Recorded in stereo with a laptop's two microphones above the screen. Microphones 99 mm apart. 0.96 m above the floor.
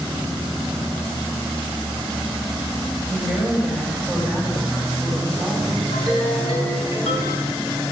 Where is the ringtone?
80° left, 4.5 m.